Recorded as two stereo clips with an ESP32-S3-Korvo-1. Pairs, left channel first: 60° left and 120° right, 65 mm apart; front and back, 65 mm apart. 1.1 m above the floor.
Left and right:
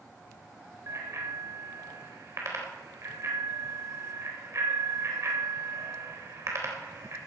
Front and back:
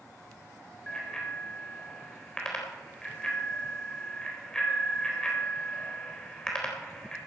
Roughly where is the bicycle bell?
Right.